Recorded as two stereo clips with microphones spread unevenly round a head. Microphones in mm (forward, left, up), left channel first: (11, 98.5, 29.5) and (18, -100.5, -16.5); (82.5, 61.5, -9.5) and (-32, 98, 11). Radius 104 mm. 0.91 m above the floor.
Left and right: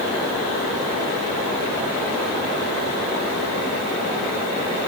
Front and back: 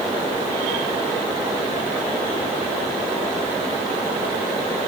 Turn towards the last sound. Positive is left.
No sound to turn to.